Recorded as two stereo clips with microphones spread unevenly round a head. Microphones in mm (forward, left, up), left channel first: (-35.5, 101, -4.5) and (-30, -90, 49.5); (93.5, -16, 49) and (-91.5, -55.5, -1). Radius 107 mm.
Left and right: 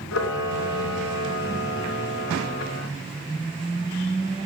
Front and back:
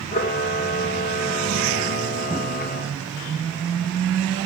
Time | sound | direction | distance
0.1 | a camera shutter | 65° left | 2.5 m